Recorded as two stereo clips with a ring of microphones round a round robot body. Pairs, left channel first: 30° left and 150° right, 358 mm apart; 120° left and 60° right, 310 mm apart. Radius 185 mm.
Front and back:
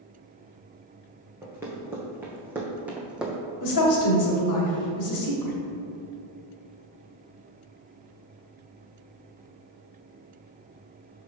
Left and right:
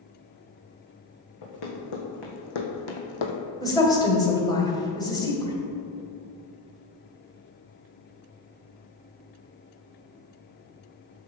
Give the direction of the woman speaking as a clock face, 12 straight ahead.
11 o'clock.